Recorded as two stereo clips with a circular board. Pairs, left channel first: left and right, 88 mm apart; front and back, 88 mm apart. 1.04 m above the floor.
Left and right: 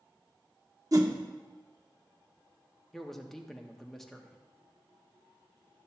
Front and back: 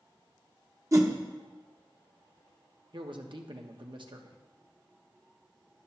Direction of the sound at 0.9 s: 135° right.